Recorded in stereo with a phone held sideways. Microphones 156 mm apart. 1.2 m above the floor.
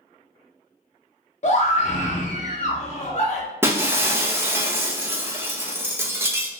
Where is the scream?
45° left (ahead or behind), 0.9 m.